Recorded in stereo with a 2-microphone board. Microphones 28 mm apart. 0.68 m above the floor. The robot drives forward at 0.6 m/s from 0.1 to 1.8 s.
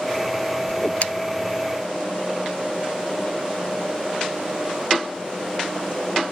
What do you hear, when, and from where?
0.7 s a whoosh: 50° left (ahead or behind)